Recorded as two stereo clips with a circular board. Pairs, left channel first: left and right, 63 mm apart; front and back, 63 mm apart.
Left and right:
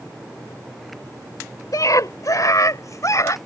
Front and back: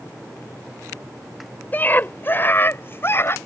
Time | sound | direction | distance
1.7 | a scream | 60° left | ?